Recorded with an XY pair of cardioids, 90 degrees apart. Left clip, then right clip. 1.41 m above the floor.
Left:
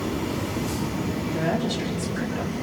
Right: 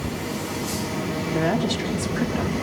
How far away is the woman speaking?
About 4 m.